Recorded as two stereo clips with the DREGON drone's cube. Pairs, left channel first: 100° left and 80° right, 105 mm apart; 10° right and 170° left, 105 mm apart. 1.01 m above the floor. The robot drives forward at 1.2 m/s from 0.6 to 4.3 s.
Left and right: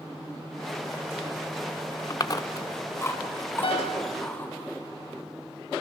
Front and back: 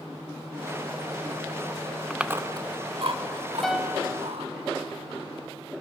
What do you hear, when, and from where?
2.1 s chewing: 80° left, 0.7 m; by 4.5 s 170° left, 2.5 m
3.6 s a piano: 75° left, 0.7 m; by 4.1 s 120° left, 0.8 m